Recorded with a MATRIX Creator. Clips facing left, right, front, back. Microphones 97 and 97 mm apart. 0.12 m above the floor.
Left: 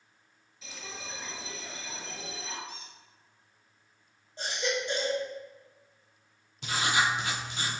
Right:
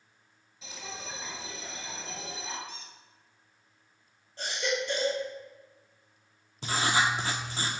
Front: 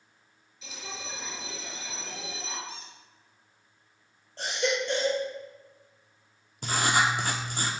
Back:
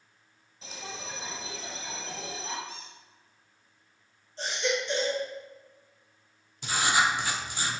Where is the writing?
35° right, 0.7 m.